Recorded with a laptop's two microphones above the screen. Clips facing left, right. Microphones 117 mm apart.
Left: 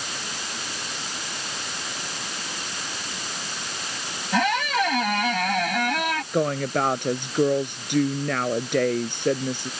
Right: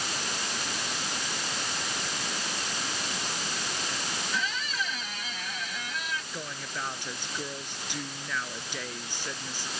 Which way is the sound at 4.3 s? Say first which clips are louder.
Left 14 dB; 70° left (ahead or behind).